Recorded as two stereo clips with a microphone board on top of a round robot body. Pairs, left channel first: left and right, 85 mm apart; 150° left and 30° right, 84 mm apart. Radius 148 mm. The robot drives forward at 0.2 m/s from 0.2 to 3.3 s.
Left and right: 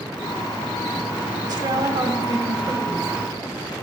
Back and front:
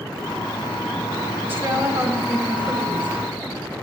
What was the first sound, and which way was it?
A woman speaking, 85° right.